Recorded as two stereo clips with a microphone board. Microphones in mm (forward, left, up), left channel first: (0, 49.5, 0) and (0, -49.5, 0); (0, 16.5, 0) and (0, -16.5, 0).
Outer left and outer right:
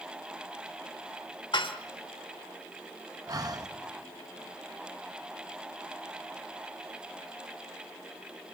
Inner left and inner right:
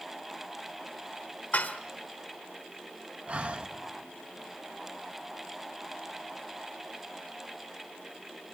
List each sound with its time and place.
1.5 s dishes clattering: 55° left (ahead or behind), 1.8 m
3.3 s breathing: 40° right (ahead or behind), 1.3 m